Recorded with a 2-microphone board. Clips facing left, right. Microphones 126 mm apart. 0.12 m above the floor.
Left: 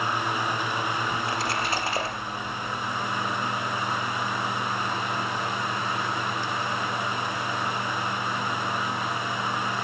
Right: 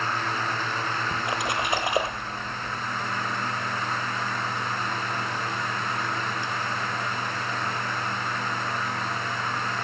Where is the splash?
15° right (ahead or behind), 2.5 m.